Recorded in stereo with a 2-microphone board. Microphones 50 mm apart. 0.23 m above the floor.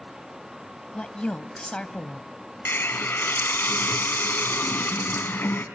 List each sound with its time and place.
0.9 s a woman speaking: 20° left (ahead or behind), 1.0 m
2.6 s a hiss: 50° left (ahead or behind), 2.0 m